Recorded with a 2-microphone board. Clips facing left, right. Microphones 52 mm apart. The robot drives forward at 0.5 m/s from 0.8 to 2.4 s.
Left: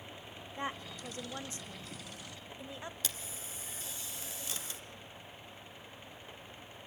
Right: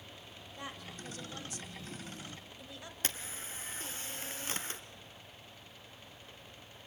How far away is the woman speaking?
About 1.3 m.